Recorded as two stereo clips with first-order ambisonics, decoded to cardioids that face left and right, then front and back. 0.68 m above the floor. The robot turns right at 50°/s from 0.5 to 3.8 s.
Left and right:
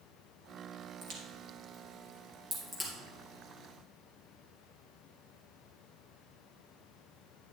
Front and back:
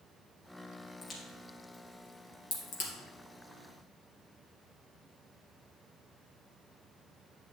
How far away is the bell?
No bell in this recording.